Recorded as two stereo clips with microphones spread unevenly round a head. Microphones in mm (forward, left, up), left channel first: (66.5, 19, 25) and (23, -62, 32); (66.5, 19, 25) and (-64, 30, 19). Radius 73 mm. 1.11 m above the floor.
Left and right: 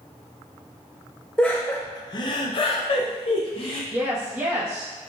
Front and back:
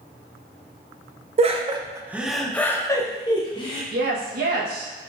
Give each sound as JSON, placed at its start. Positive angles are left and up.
{"t": 1.4, "sound": "laughter", "azimuth_deg": 140, "distance_m": 0.7}
{"t": 3.9, "sound": "a woman speaking", "azimuth_deg": 170, "distance_m": 1.1}